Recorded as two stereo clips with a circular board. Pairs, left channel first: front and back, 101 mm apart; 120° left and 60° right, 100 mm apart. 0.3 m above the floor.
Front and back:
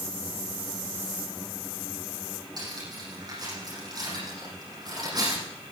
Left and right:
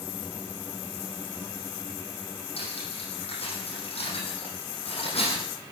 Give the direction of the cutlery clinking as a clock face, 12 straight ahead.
8 o'clock.